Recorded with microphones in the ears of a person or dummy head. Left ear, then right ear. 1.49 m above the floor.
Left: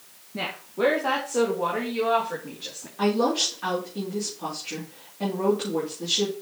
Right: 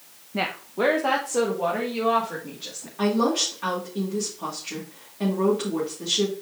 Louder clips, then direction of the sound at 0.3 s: Right 2 dB; 30° right (ahead or behind).